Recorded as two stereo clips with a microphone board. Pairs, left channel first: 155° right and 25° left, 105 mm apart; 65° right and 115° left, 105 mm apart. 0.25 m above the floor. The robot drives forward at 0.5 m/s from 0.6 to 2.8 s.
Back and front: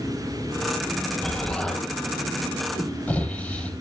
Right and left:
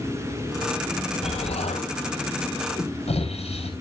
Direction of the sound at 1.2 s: 75° right.